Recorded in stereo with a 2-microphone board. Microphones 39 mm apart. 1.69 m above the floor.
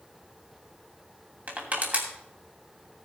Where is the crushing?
40° right (ahead or behind), 3 m.